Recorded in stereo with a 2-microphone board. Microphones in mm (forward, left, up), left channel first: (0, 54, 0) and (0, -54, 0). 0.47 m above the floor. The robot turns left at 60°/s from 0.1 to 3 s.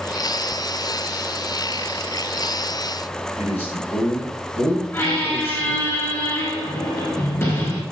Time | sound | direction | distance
3.4 | a man speaking | 75° left (ahead or behind) | 4.5 m
4.9 | a squeak | 30° left (ahead or behind) | 4 m